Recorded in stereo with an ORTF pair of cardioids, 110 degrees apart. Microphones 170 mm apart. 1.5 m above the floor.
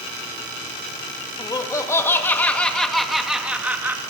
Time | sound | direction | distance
1.4 | laughter | 25° left | 3 m